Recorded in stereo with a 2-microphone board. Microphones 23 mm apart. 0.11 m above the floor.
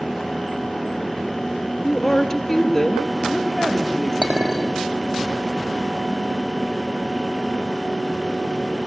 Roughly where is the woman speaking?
Centre.